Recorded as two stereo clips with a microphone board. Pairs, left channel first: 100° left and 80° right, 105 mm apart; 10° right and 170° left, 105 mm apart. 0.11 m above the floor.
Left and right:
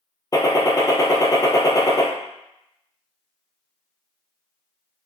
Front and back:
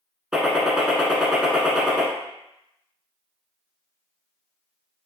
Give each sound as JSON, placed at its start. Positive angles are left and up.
{"t": 0.3, "sound": "a gunshot", "azimuth_deg": 90, "distance_m": 0.9}